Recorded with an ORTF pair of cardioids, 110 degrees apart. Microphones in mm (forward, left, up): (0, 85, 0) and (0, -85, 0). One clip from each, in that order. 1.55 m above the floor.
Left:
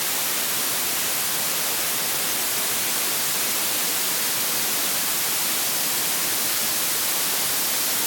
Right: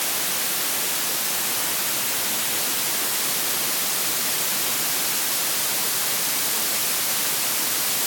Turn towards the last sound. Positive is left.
No sound to turn to.